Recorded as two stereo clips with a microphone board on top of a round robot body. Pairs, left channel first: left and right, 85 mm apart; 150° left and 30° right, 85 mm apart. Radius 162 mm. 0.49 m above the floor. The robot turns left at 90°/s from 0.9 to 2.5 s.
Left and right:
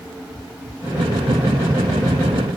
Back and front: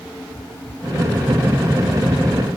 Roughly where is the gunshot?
I don't hear a gunshot.